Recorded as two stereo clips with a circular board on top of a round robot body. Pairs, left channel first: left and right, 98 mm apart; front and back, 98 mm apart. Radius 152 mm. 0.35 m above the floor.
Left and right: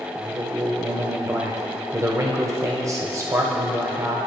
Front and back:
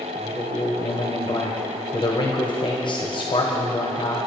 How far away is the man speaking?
About 1.9 m.